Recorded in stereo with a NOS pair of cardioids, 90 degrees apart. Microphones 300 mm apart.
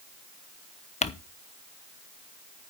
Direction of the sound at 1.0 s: 25° left.